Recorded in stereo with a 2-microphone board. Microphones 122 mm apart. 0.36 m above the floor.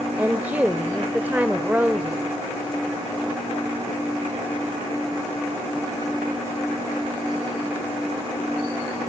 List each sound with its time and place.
0.2 s a woman speaking: 15° right (ahead or behind), 0.9 m